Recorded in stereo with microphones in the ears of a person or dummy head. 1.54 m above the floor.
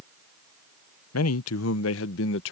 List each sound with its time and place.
1.1 s a man speaking: 85° left; by 2.5 s 70° left (ahead or behind)